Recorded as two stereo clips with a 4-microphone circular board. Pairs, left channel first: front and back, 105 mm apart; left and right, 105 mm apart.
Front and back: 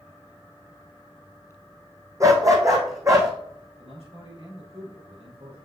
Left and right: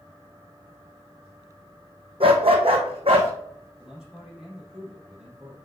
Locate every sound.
2.2 s a dog barking: 120° right, 1.6 m
3.8 s a man speaking: 175° right, 5 m